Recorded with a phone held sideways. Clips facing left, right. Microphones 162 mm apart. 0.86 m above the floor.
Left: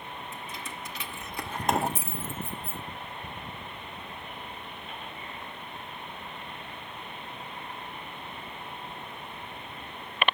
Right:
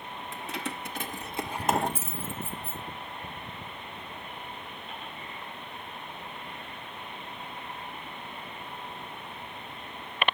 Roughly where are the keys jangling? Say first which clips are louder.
Right 4 dB; right.